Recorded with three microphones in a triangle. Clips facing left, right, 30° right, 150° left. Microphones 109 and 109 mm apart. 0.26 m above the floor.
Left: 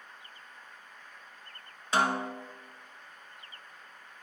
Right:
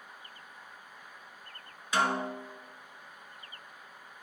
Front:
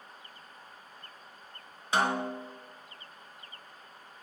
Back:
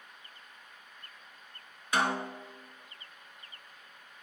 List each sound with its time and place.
1.9 s a snare drum: 30° left, 1.3 m